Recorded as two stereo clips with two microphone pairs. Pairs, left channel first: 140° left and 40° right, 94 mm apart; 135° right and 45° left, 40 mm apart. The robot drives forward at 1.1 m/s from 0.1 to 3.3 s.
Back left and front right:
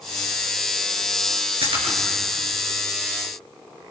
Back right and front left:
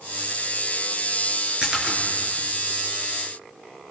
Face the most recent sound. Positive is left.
turn(degrees=-40)